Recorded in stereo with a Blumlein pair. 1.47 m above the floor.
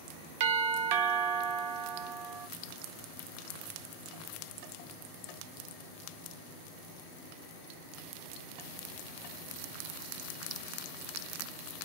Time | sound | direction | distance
0.4 | a doorbell | 45° right | 0.7 m